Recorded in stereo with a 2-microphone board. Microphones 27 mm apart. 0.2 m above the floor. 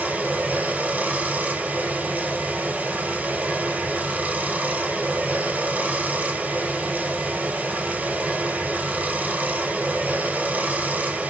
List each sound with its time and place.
0.0 s running water: 65° right (ahead or behind), 0.8 m